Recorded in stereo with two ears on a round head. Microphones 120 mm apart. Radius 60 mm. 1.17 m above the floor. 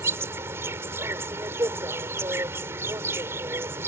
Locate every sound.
0.0 s an insect: 20° right (ahead or behind)